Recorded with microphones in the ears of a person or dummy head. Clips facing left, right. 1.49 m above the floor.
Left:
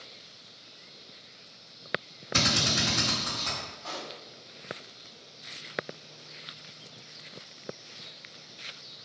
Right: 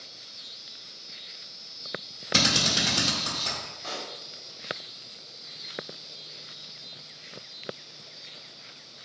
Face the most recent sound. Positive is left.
turn(degrees=-65)  # may be behind; listen again after turning